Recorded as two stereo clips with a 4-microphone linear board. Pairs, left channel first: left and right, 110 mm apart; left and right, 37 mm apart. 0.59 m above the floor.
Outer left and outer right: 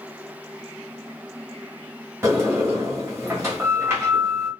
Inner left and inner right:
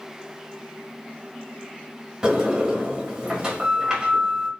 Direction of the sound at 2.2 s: 20° right (ahead or behind).